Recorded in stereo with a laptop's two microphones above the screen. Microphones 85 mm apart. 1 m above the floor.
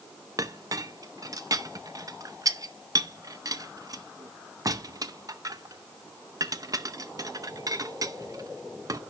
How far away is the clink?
About 0.7 m.